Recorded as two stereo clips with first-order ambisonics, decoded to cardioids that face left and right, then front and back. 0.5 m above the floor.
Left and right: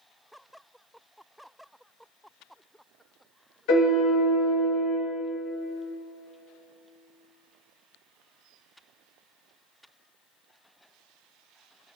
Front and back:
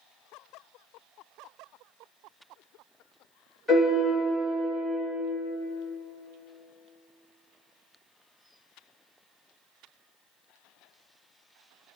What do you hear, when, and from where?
3.7 s a piano: 90° left, 1.3 m